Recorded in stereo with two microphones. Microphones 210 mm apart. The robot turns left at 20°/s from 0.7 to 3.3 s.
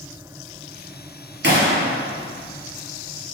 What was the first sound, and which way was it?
A gunshot, 50° right (ahead or behind).